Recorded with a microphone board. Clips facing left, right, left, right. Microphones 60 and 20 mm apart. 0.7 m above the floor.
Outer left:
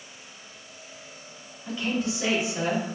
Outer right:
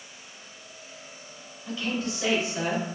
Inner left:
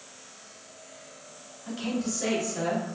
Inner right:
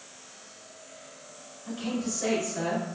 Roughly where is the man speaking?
Left.